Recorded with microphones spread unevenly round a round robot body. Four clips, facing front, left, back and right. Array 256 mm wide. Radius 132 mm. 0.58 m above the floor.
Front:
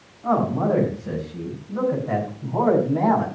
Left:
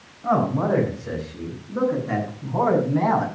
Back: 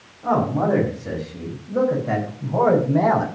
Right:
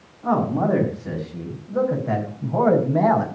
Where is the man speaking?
140° right, 6 m; by 3.3 s 130° right, 3.5 m.